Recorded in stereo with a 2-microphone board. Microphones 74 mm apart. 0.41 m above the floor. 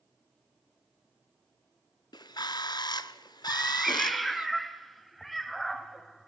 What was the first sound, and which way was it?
A bird, 75° left (ahead or behind).